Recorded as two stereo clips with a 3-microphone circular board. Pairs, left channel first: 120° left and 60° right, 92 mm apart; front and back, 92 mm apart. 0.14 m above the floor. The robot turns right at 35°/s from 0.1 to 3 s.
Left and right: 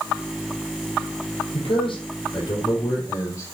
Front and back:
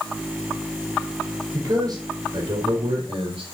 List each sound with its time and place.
1.5 s a man speaking: 120° left, 4.5 m; by 3.4 s 175° left, 4.5 m